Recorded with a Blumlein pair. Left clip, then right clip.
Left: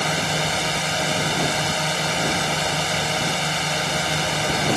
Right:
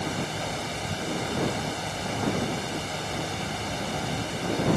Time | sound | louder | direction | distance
0.0 | a drone | left 9 dB | 60° left | ?